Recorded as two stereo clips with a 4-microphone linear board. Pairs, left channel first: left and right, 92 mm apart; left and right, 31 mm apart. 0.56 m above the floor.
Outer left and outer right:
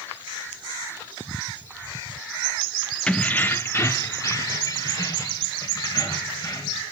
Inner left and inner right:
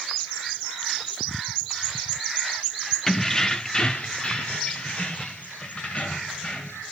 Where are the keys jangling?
10° left (ahead or behind), 0.6 m; by 6.8 s 40° left (ahead or behind), 2.5 m.